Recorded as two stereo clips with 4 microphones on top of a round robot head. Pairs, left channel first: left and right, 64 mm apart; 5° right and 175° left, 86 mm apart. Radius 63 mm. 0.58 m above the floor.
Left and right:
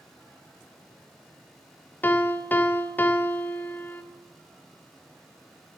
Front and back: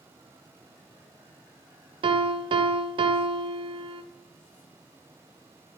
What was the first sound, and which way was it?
A piano, 155° left.